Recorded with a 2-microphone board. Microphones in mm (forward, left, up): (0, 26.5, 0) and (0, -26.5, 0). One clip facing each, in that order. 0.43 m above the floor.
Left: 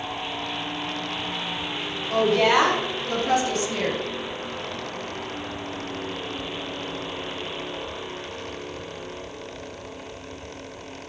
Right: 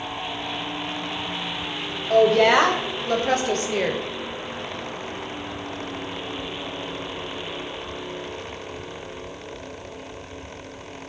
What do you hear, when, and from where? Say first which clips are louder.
2.1 s a woman speaking: right 4 dB; 65° right (ahead or behind), 2.5 m; by 4.0 s 45° right (ahead or behind), 1.4 m